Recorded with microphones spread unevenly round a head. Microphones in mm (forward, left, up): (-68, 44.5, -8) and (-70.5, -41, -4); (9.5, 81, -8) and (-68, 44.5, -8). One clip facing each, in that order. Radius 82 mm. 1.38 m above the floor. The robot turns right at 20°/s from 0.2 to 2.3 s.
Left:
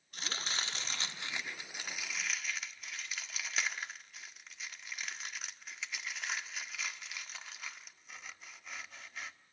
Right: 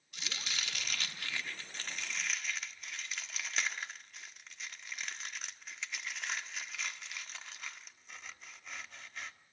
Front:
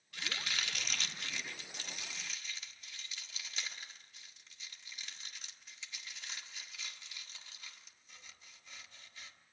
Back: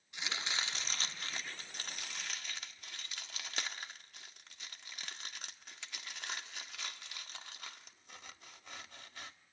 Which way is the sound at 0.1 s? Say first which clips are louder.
Left 3 dB, back 1 dB; 135° left.